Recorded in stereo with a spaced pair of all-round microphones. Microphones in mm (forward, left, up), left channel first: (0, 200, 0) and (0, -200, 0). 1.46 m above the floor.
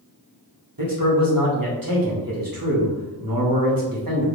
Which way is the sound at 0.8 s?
55° right (ahead or behind).